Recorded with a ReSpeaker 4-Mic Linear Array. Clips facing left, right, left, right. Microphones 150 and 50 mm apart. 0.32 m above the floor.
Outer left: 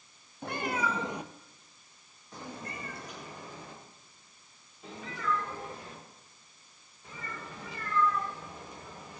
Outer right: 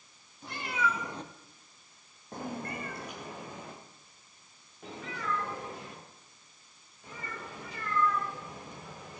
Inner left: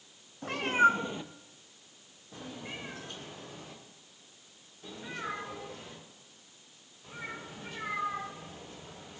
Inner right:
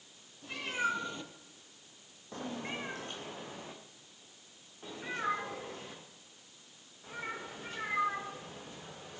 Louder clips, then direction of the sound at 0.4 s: Outer left 1 dB, inner left 9 dB; 60° left (ahead or behind).